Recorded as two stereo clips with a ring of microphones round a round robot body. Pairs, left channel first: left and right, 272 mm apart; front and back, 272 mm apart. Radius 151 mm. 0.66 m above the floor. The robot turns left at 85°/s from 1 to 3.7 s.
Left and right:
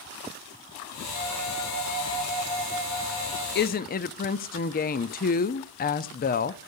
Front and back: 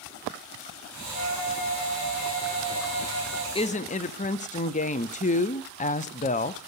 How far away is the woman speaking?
About 0.6 m.